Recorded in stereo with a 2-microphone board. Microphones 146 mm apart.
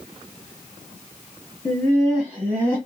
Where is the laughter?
15° left (ahead or behind), 1.1 m; by 2.8 s 20° right (ahead or behind), 1.3 m.